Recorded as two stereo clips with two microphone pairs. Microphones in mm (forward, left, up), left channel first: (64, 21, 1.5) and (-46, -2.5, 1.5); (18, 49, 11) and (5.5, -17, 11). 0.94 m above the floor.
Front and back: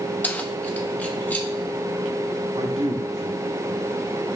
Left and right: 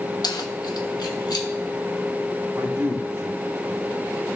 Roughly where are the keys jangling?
Left.